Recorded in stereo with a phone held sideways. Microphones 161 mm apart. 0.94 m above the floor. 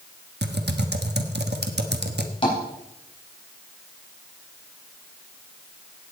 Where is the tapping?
30° left (ahead or behind), 4 m.